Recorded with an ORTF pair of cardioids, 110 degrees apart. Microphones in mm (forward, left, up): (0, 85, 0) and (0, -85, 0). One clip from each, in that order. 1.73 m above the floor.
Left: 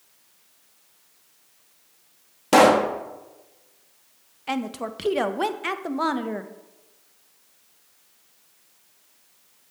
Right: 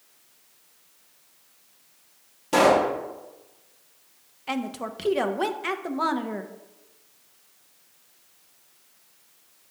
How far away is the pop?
About 1.2 m.